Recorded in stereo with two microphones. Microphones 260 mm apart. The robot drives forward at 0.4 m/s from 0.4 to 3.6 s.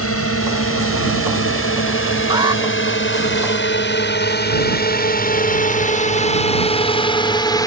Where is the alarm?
15° right (ahead or behind).